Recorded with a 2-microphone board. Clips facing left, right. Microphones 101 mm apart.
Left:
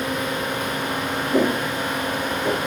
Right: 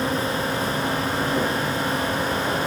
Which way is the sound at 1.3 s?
40° left (ahead or behind).